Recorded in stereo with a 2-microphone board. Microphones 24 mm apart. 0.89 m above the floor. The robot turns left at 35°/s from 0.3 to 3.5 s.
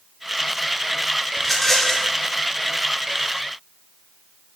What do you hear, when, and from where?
1.4 s a rattle: 5° left (ahead or behind), 0.9 m; by 2.1 s 30° left (ahead or behind), 0.9 m